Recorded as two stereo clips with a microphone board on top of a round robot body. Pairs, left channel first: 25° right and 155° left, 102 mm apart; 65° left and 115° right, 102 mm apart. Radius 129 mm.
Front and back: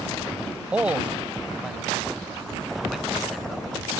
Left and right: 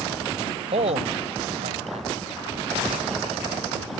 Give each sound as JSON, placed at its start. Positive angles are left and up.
{"t": 0.7, "sound": "a man speaking", "azimuth_deg": -125}